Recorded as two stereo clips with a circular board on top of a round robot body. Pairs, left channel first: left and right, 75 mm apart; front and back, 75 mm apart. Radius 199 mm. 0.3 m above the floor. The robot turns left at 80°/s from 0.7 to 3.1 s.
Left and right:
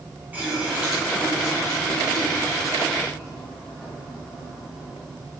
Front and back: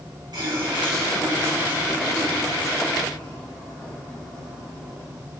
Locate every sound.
0.3 s a running tap: 160° right, 4 m; by 5.2 s 10° left, 4 m